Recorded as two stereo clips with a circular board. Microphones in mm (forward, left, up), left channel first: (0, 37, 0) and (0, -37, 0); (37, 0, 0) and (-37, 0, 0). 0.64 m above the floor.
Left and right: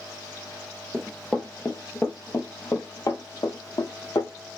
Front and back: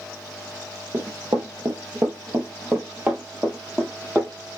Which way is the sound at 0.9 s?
175° right.